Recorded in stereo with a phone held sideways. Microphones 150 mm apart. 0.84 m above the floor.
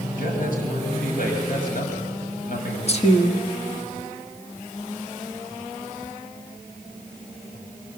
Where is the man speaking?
70° left (ahead or behind), 6 m.